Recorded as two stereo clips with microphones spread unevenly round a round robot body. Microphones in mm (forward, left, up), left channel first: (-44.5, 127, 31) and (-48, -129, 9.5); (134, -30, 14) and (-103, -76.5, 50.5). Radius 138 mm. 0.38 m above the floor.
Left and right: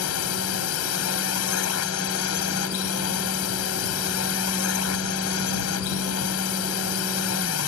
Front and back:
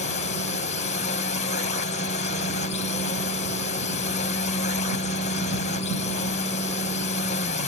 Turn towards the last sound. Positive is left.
turn(degrees=65)